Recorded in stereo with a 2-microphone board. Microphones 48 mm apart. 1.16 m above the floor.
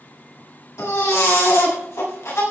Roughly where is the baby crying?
Left.